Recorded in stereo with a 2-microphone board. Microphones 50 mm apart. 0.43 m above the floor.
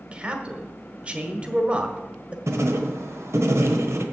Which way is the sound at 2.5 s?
65° right (ahead or behind).